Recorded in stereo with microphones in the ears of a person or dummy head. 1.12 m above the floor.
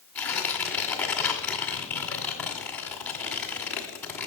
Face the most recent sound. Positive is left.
turn(degrees=5)  # may be behind; listen again after turning